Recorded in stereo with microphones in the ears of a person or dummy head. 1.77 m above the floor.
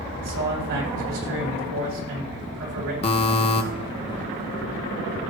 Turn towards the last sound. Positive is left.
turn(degrees=35)  # may be behind; listen again after turning